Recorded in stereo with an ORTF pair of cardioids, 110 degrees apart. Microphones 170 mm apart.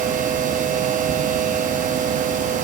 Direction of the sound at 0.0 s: 50° right.